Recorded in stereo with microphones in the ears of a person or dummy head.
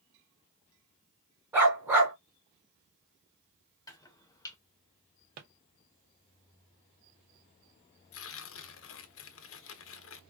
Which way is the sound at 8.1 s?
70° left (ahead or behind).